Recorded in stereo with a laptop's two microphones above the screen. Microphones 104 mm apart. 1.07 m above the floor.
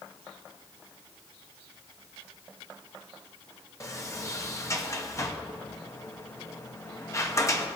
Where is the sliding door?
30° left (ahead or behind), 0.7 m.